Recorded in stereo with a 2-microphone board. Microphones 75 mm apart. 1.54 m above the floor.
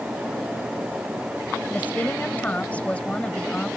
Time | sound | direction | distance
1.7 | a woman speaking | 20° left (ahead or behind) | ?